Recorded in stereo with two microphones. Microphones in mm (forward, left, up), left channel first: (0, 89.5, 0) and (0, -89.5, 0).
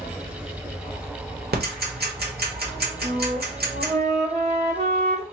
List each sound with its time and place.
1.5 s ticking: 65° right (ahead or behind), 1.3 m
3.0 s a flute: 75° right (ahead or behind), 1.9 m